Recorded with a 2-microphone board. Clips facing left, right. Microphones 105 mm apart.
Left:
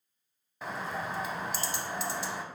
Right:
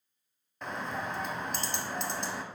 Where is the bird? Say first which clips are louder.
Even; 5° left (ahead or behind), 0.5 m.